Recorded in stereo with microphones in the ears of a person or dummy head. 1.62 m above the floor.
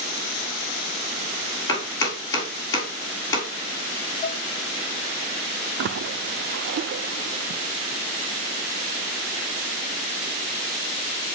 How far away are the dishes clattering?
About 2.5 m.